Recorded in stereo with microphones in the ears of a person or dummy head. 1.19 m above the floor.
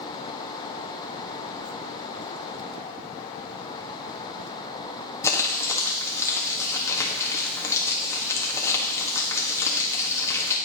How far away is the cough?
I don't hear a cough.